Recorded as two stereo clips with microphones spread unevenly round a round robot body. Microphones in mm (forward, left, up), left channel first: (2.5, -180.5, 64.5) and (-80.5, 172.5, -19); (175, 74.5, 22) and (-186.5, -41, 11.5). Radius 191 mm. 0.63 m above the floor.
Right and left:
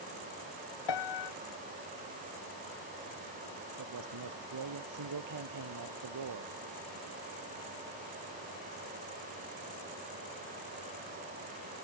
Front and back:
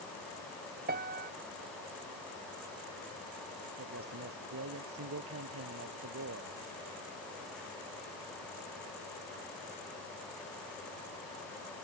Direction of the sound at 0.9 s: 95° right.